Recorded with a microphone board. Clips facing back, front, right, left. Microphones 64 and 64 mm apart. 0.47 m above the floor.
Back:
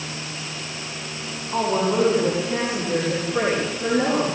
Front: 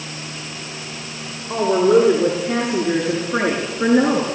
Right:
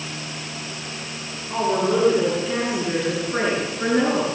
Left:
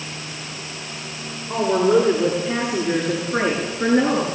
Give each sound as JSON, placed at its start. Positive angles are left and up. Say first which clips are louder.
{"t": 1.5, "sound": "a woman speaking", "louder": "front 7 dB, left 4 dB", "azimuth_deg": 15, "distance_m": 7.0}